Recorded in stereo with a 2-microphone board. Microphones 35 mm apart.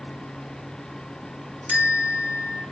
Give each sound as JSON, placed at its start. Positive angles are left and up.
{"t": 1.7, "sound": "a bell", "side_deg": -50, "distance_m": 1.5}